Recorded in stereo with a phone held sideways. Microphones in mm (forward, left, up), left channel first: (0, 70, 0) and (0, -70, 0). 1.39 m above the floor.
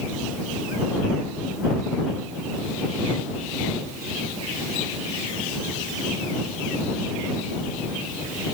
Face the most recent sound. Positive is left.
No sound to turn to.